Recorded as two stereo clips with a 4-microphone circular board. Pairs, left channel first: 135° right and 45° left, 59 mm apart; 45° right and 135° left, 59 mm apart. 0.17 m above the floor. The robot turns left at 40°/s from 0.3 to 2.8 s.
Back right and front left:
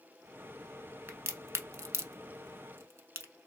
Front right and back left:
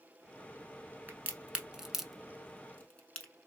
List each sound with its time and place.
1.1 s a crack: 85° left, 0.6 m; by 3.3 s 15° left, 0.6 m